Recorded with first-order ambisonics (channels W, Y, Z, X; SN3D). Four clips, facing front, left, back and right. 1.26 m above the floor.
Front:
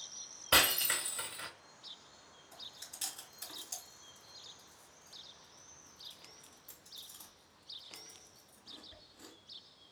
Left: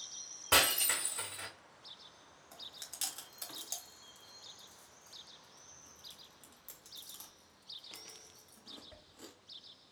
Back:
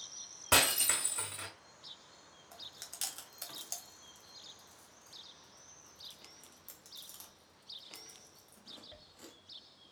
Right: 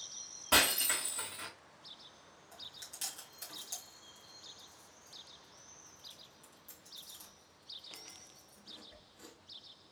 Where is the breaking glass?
170° left, 3 m.